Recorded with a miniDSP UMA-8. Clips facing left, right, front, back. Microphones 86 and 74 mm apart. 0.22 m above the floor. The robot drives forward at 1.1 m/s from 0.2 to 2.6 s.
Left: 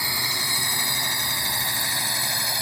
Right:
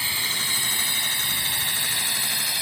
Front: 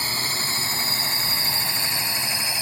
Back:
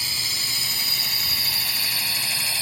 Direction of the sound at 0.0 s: 25° left.